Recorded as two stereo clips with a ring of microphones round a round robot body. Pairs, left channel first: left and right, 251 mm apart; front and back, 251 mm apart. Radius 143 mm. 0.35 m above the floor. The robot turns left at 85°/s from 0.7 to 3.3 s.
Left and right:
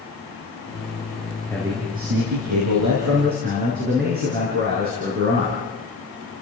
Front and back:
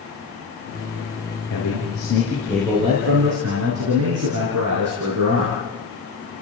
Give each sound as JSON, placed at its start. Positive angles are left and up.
{"t": 1.5, "sound": "a man speaking", "azimuth_deg": 5, "distance_m": 5.5}